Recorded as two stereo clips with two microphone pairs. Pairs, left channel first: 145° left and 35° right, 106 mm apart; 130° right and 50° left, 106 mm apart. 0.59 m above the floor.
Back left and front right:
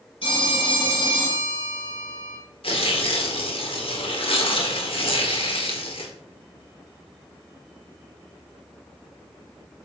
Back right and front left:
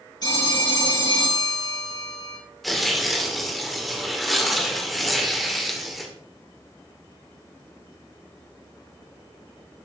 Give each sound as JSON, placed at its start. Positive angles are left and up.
{"t": 0.2, "sound": "a phone ringing", "azimuth_deg": 180, "distance_m": 7.0}
{"t": 2.6, "sound": "tearing paper", "azimuth_deg": 135, "distance_m": 1.9}